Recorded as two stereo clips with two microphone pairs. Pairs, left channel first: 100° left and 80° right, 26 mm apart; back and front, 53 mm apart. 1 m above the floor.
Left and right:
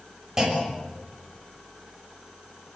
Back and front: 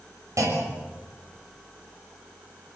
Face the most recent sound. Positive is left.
turn(degrees=-15)